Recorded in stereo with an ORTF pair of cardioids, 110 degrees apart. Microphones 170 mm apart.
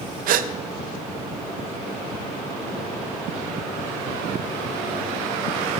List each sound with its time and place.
0.3 s a gasp: 60° right, 0.5 m